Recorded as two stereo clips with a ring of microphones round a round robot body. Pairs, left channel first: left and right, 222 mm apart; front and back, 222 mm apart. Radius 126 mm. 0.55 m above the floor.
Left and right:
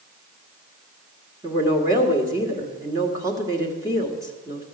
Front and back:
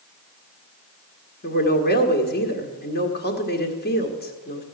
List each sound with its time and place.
1.4 s a woman speaking: 20° right, 1.5 m